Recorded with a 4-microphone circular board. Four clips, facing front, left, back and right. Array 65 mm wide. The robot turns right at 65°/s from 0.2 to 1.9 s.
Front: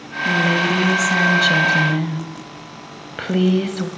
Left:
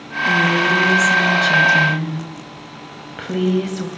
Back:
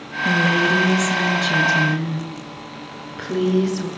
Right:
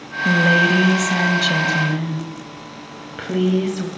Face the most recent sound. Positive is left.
turn(degrees=0)